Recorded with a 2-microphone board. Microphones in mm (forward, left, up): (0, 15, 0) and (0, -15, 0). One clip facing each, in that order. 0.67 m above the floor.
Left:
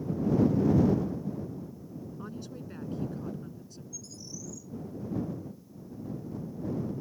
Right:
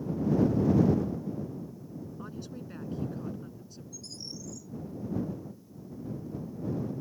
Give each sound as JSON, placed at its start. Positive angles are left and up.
{"t": 2.2, "sound": "a woman speaking", "side_deg": 0}
{"t": 3.9, "sound": "a bird", "side_deg": -65}